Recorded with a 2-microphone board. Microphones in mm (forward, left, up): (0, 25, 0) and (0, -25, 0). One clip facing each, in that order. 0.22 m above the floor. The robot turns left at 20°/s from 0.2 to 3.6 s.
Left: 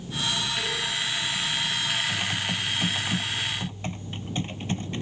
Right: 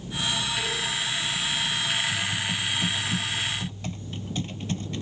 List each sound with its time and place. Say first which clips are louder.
2.1 s typing on a keyboard: even; 60° left; by 5.0 s 30° left